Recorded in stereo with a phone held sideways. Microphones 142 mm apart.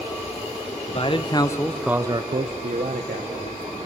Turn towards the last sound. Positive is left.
turn(degrees=-80)